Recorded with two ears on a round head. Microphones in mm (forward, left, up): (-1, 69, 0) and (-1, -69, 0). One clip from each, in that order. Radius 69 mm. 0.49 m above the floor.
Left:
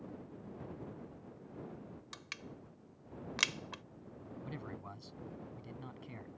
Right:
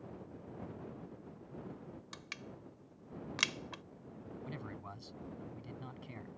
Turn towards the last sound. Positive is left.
turn(degrees=-5)  # may be behind; listen again after turning